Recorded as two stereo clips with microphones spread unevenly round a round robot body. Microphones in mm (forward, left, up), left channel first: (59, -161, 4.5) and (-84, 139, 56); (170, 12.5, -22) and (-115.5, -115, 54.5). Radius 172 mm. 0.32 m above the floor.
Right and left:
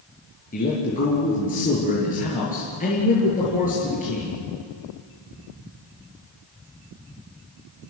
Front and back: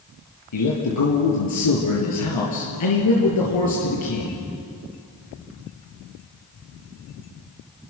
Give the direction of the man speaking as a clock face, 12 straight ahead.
12 o'clock.